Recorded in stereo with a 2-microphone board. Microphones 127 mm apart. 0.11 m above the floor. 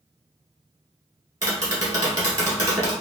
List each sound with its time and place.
1.4 s tapping: 25° right (ahead or behind), 1.3 m